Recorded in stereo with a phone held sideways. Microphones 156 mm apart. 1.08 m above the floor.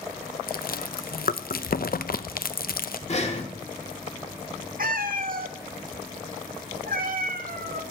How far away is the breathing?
About 1.6 m.